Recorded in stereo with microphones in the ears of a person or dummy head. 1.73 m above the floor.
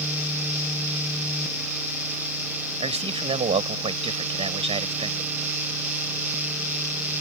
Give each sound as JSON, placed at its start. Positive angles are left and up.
{"t": 2.8, "sound": "a man speaking", "side_deg": -25}